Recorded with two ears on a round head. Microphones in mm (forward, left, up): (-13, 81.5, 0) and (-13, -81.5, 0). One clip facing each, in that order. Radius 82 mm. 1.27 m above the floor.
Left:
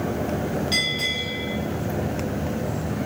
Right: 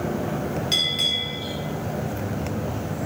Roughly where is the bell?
Right.